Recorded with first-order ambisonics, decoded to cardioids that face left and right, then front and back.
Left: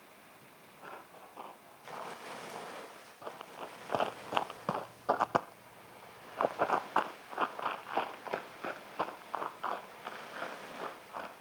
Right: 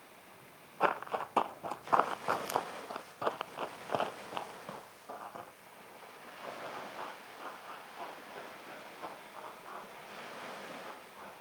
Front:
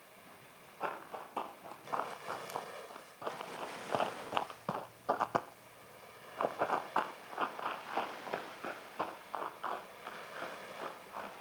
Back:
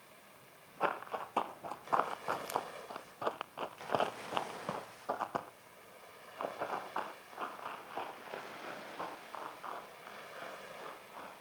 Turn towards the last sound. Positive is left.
turn(degrees=70)